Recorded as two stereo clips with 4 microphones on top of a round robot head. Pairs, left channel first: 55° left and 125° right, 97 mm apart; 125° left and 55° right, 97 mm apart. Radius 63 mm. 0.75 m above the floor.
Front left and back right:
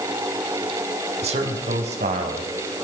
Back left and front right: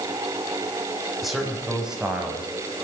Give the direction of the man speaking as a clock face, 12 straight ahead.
5 o'clock.